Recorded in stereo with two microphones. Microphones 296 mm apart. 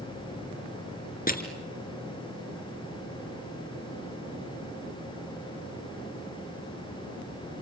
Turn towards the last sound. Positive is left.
turn(degrees=30)  # may be behind; listen again after turning